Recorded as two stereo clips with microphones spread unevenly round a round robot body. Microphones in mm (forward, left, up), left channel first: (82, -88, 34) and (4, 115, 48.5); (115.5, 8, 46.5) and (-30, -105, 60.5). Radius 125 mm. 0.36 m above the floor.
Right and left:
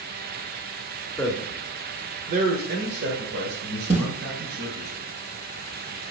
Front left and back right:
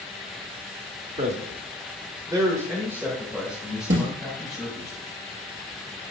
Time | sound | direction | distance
1.2 | a man speaking | 140° right | 1.1 m
3.9 | a snare drum | 175° left | 3 m